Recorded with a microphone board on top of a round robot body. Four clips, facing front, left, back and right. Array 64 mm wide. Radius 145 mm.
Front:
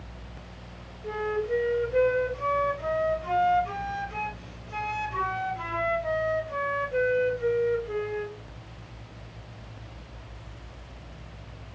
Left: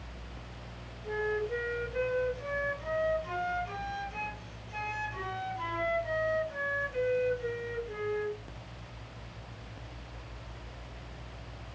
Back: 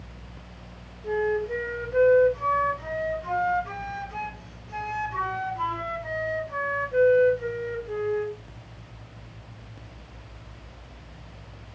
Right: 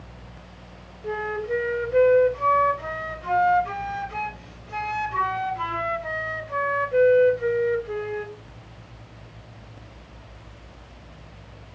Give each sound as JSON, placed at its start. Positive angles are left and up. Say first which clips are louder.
{"t": 1.0, "sound": "a flute", "louder": "right 5 dB, back 3 dB", "azimuth_deg": -85, "distance_m": 1.7}